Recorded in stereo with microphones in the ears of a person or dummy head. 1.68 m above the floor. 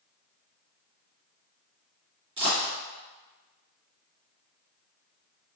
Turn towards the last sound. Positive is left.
turn(degrees=-30)  # may be behind; listen again after turning